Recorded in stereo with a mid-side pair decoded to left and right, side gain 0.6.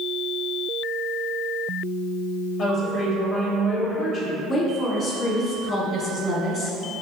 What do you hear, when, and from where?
2.6 s a woman speaking: 55° left, 0.9 m
4.5 s a woman speaking: 40° left, 0.9 m